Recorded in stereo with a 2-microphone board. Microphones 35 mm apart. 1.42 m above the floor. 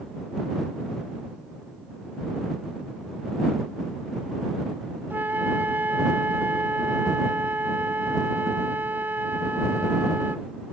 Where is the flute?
75° right (ahead or behind).